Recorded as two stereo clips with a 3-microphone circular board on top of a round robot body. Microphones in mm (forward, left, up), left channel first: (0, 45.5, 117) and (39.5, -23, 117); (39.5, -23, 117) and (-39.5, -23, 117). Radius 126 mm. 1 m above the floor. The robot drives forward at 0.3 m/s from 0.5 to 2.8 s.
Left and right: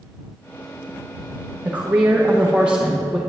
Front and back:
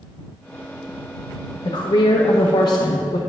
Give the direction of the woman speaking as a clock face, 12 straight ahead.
12 o'clock.